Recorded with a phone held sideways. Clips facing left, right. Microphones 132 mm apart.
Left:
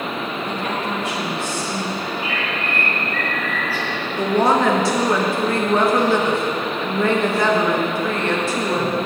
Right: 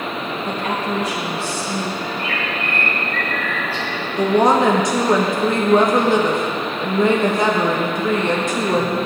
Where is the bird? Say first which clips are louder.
Right 1 dB; 10° left (ahead or behind), 2.5 m.